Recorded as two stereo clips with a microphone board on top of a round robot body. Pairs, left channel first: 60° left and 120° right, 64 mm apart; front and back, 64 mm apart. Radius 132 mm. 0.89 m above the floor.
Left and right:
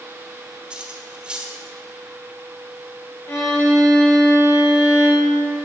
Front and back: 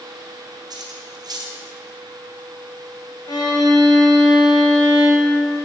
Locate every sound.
0.7 s cutlery clinking: 165° left, 1.6 m
3.3 s a violin: 5° left, 2 m